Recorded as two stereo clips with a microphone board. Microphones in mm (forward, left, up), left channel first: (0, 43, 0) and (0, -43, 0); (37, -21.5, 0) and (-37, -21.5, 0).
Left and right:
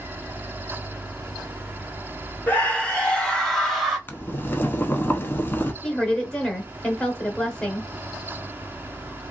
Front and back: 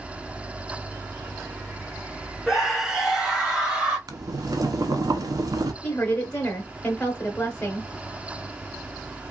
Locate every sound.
2.5 s a scream: 105° left, 1.6 m; by 4.0 s 165° right, 1.6 m
4.1 s boiling: 155° left, 0.6 m
5.8 s a woman speaking: 25° left, 1.0 m